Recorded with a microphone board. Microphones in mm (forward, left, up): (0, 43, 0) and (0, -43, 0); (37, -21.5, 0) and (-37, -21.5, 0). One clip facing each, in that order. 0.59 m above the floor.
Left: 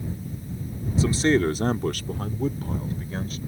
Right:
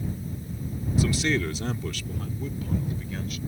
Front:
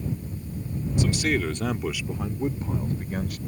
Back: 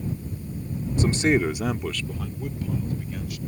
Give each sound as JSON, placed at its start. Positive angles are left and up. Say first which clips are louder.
{"t": 1.0, "sound": "a man speaking", "louder": "left 5 dB, back 4 dB", "azimuth_deg": 140}